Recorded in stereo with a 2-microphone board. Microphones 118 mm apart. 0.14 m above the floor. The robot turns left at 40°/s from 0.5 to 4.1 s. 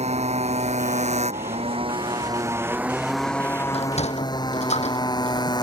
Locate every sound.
0.0 s a motorcycle: 75° right; by 5.6 s 145° left
3.7 s a sliding door: 60° left (ahead or behind); by 5.5 s 70° left (ahead or behind)